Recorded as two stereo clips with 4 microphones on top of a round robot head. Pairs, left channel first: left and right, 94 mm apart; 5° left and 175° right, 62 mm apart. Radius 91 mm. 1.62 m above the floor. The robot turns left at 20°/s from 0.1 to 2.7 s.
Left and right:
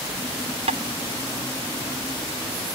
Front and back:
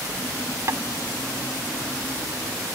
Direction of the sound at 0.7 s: 115° right.